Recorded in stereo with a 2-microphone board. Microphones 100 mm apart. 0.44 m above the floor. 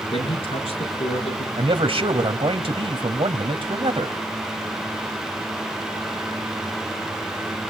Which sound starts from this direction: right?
A man speaking, at 1.6 s.